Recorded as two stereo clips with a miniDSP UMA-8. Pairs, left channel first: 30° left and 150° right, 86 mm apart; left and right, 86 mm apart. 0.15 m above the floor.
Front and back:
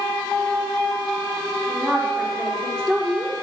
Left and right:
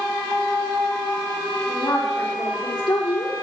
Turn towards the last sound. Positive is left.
turn(degrees=115)